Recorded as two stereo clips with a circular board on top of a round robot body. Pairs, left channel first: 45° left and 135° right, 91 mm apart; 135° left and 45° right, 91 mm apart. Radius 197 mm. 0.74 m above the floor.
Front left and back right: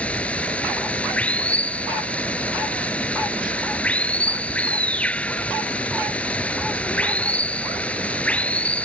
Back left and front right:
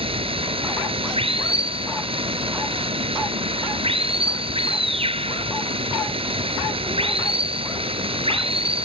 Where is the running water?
30° right.